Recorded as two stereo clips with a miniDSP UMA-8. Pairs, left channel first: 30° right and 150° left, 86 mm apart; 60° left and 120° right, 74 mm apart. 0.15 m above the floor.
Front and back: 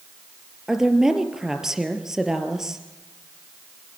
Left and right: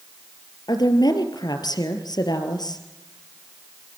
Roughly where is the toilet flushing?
No toilet flushing in this recording.